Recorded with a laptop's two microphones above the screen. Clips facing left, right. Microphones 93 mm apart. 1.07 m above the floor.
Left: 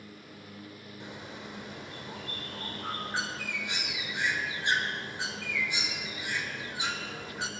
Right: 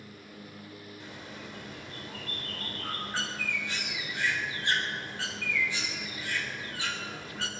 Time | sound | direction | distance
1.0 | a bird | 20° left (ahead or behind) | 3 m